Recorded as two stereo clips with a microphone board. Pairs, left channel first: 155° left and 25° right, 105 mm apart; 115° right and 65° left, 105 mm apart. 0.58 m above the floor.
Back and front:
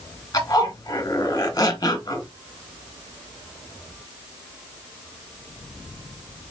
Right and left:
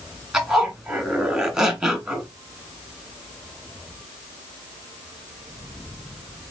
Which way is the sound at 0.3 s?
145° left.